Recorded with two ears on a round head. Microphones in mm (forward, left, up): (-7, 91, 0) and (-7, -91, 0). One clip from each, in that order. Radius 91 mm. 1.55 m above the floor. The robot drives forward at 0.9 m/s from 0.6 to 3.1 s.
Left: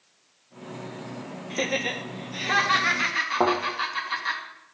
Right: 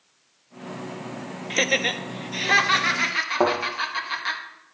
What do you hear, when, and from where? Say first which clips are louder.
1.5 s laughter: right 5 dB; 65° right (ahead or behind), 1.0 m; by 4.4 s 25° right (ahead or behind), 2 m
3.4 s a thud: right 1 dB; 20° right (ahead or behind), 2.5 m